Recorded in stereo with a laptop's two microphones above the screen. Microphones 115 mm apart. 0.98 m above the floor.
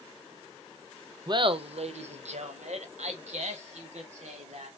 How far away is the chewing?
No chewing in this recording.